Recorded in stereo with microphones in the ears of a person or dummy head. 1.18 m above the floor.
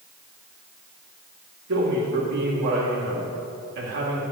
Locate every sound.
1.7 s a man speaking: 55° right (ahead or behind), 2 m